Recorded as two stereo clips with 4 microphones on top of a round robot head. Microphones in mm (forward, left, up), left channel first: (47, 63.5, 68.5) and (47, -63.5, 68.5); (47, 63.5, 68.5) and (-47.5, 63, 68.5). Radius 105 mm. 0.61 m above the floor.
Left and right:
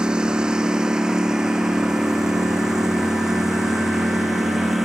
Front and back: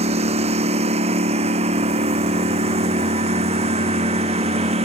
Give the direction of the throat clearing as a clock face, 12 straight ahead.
No throat clearing in this recording.